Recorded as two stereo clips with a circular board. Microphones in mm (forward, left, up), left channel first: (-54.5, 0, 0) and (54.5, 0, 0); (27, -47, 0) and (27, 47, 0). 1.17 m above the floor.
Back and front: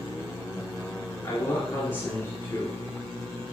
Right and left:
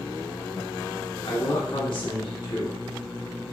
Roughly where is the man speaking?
Behind right.